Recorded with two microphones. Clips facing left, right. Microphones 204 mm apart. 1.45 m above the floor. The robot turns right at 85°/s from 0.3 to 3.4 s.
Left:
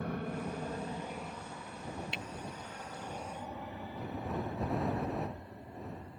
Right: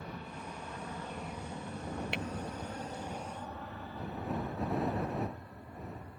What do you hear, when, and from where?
0.0 s an aircraft: 60° left (ahead or behind); by 6.2 s 25° left (ahead or behind)
2.1 s tapping: 60° right (ahead or behind); by 2.2 s 70° right (ahead or behind)